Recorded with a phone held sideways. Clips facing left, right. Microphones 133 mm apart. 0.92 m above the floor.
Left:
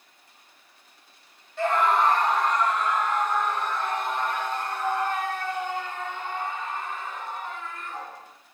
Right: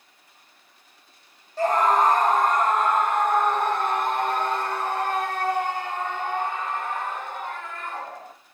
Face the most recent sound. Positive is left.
turn(degrees=-70)  # may be behind; listen again after turning